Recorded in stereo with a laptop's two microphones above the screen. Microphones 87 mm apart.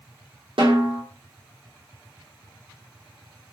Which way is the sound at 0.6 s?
85° right.